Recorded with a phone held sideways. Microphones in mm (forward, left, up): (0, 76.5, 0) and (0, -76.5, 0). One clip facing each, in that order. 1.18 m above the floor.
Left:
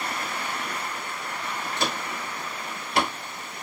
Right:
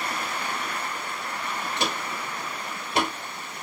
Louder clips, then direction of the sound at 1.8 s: Left 1 dB; 20° right (ahead or behind).